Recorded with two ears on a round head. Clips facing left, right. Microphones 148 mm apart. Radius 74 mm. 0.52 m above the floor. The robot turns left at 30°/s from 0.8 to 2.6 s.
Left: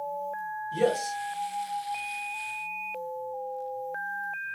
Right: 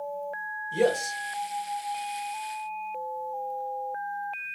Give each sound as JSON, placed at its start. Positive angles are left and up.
{"t": 0.7, "sound": "a man speaking", "side_deg": -20, "distance_m": 1.2}